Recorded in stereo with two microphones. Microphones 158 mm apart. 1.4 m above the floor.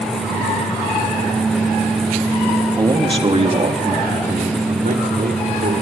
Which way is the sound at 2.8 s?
25° right (ahead or behind).